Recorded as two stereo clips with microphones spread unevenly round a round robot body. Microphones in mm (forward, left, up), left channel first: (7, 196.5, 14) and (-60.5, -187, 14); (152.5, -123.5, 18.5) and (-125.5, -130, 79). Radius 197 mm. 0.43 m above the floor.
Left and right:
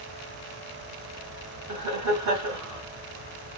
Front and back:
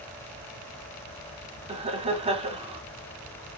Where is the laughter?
100° right, 1.1 m.